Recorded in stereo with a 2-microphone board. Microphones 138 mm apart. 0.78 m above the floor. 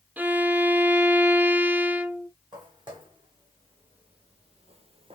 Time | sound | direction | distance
0.2 | a violin | 10° right (ahead or behind) | 0.6 m
2.5 | footsteps | 35° right (ahead or behind) | 3 m